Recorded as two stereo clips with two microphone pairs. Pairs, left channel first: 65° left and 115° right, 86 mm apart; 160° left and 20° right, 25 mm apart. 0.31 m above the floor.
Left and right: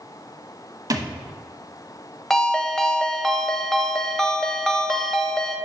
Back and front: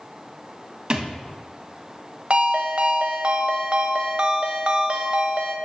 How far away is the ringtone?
About 0.8 m.